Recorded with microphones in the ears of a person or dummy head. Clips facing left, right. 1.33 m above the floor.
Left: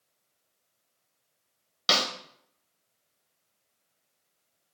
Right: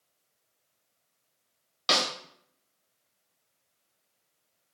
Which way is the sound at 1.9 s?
5° left (ahead or behind).